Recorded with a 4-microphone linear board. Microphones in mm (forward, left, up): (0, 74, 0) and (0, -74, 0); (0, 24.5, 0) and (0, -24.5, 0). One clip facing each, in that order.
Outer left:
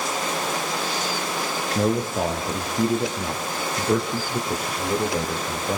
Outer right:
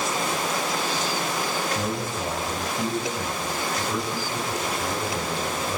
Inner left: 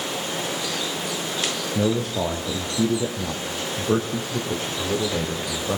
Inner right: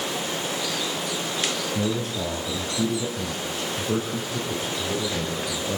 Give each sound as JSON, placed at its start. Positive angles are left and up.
{"t": 1.8, "sound": "a man speaking", "side_deg": 80, "distance_m": 5.5}